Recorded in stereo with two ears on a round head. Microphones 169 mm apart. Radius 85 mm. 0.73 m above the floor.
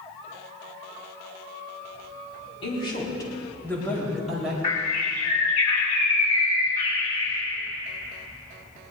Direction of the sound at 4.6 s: 40° left (ahead or behind).